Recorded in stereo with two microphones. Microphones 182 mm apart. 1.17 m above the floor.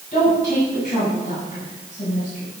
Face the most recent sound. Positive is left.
turn(degrees=45)  # may be behind; listen again after turning